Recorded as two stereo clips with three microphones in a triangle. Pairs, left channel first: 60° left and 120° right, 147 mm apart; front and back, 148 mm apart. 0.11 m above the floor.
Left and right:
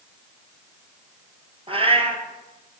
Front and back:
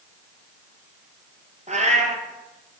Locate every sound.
1.7 s a cat meowing: 160° right, 1.5 m